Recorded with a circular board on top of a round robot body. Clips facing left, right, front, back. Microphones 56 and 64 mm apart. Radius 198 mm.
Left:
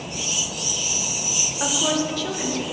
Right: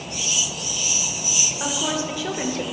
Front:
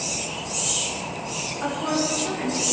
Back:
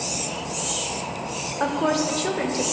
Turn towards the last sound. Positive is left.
turn(degrees=-135)